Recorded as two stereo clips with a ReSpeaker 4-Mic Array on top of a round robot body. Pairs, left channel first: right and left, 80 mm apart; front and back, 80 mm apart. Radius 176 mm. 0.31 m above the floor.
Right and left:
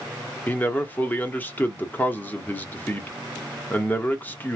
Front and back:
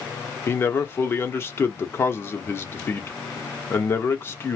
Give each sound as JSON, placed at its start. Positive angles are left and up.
{"t": 0.5, "sound": "a man speaking", "azimuth_deg": -40, "distance_m": 1.3}